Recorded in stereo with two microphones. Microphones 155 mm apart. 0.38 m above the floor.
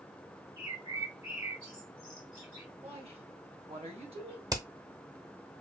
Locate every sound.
0.6 s a bird: 40° left (ahead or behind), 3 m
2.8 s a woman speaking: 40° right (ahead or behind), 1.6 m
4.5 s hammering: 25° right (ahead or behind), 0.7 m